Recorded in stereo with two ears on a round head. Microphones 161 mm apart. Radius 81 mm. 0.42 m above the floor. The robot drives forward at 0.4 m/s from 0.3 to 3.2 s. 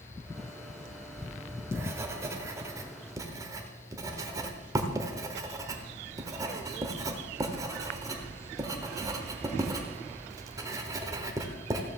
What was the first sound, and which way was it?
Writing, 15° right (ahead or behind).